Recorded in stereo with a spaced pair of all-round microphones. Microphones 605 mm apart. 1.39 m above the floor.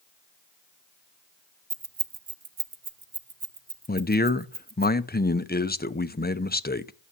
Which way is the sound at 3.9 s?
15° left (ahead or behind).